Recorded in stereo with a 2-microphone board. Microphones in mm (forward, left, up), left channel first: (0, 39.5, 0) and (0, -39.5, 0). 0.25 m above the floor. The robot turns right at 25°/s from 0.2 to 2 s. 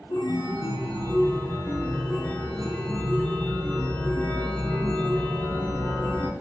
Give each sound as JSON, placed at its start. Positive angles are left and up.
{"t": 0.1, "sound": "a chime", "azimuth_deg": 110, "distance_m": 0.6}